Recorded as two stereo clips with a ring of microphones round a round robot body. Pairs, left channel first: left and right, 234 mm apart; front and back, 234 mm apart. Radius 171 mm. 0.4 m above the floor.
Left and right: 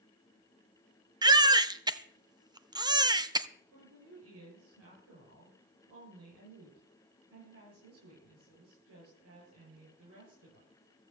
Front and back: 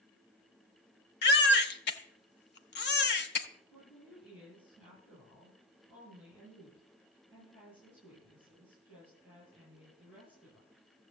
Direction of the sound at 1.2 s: 20° right.